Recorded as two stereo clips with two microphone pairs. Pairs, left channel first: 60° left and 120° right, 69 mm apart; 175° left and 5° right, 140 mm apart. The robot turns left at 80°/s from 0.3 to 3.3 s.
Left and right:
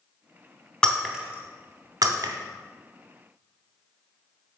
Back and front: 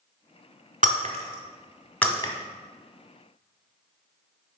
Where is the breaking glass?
10° right, 0.8 m; by 2.3 s 130° right, 0.8 m.